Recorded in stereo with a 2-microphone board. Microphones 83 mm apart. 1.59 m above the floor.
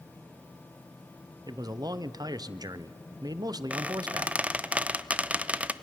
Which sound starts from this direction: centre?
A squeak, at 3.7 s.